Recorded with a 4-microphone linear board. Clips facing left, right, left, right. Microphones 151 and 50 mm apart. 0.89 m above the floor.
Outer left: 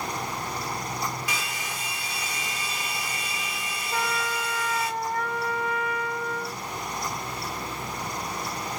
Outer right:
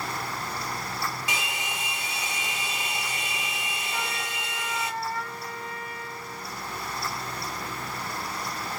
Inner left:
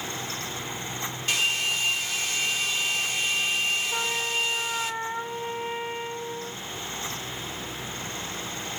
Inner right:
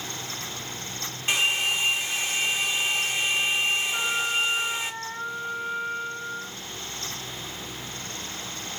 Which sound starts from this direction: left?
A trumpet, at 3.9 s.